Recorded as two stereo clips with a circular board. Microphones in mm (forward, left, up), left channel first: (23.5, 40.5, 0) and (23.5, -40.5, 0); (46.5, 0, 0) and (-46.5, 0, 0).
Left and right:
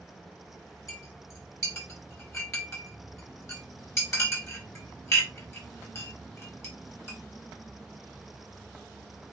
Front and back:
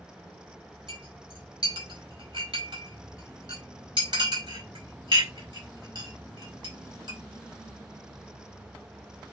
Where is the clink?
145° left, 4.5 m.